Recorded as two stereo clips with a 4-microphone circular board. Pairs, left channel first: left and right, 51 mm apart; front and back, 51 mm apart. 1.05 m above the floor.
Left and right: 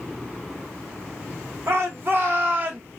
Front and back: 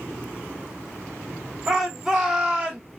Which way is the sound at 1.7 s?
100° right.